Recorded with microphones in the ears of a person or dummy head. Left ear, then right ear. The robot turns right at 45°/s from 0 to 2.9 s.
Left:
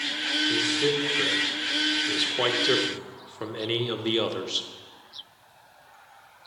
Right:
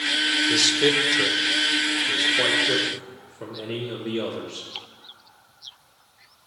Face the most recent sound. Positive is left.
turn(degrees=40)  # may be behind; listen again after turning